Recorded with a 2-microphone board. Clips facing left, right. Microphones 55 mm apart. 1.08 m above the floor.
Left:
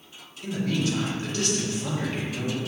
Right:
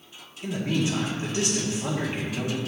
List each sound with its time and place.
0.4 s a man speaking: 25° right (ahead or behind), 2.5 m